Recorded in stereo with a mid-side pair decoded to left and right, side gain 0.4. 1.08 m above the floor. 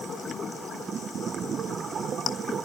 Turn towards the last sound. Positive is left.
No sound to turn to.